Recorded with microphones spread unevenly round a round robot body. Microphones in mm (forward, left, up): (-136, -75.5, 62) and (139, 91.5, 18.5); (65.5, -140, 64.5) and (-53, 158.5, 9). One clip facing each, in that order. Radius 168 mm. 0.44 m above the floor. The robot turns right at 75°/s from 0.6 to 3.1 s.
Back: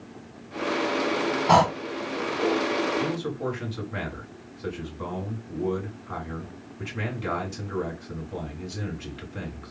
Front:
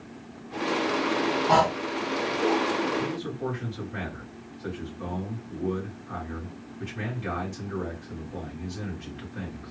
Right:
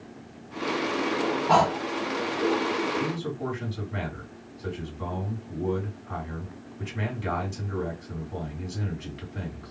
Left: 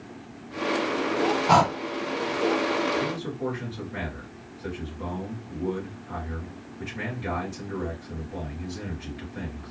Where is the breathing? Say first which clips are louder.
Back 5 dB, even; 165° left, 0.6 m; by 1.8 s 175° right, 0.6 m.